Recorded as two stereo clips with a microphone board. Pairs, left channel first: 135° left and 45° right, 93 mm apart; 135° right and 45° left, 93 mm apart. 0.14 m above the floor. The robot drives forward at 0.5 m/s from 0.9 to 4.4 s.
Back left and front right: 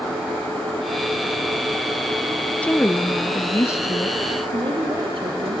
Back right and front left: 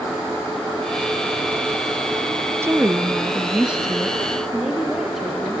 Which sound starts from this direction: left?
A woman speaking, at 2.6 s.